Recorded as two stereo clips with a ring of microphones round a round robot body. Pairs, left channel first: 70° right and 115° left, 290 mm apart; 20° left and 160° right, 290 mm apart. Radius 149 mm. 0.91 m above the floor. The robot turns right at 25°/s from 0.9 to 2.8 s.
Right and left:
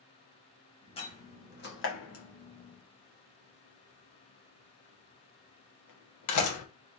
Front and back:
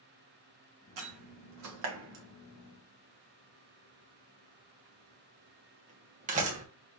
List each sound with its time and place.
1.0 s a door slam: 140° right, 1.4 m; by 6.7 s 95° right, 1.4 m